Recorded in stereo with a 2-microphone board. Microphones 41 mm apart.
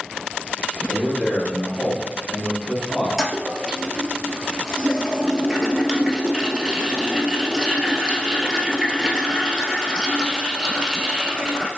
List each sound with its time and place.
0.9 s a man speaking: 25° right (ahead or behind), 1.5 m
3.2 s a toilet flushing: 15° right (ahead or behind), 0.7 m